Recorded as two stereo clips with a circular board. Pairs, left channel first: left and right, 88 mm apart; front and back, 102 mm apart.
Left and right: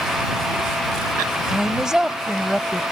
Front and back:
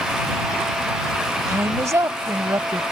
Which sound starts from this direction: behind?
A woman speaking, at 1.5 s.